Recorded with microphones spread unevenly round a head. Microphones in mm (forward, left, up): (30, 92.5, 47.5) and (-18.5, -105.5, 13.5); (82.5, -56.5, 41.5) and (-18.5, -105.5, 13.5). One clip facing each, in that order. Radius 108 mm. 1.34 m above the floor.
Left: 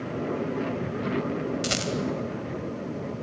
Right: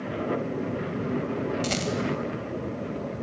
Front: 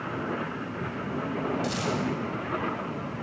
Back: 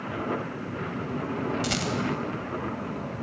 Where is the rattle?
145° left, 2.0 m.